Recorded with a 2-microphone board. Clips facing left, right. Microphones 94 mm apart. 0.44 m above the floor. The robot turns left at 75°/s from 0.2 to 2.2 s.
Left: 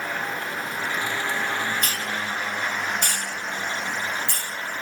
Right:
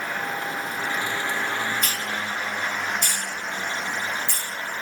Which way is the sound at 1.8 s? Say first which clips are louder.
Even; 50° left (ahead or behind).